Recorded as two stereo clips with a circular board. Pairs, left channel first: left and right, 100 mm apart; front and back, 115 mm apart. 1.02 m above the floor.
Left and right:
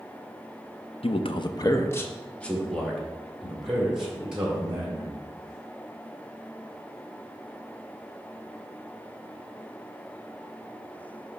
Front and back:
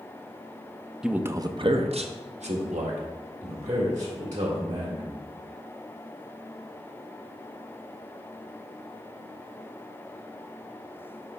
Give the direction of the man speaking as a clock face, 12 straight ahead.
9 o'clock.